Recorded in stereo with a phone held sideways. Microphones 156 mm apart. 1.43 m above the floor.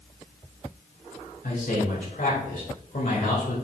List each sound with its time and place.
1.4 s a man speaking: 65° left (ahead or behind), 3 m